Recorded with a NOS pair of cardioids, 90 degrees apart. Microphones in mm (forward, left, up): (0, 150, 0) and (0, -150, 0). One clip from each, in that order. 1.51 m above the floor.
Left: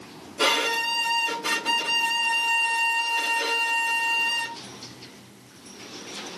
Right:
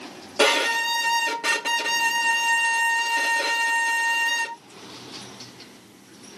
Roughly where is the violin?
Ahead right.